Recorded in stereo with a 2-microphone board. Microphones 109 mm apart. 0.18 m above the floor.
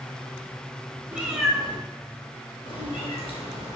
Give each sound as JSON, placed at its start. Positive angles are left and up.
{"t": 1.1, "sound": "a cat meowing", "side_deg": -15, "distance_m": 0.8}